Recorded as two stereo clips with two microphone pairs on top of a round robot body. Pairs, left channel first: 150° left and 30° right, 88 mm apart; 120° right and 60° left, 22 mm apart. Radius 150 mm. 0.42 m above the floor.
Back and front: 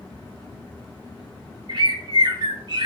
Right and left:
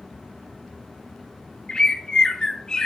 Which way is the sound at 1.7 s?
60° right.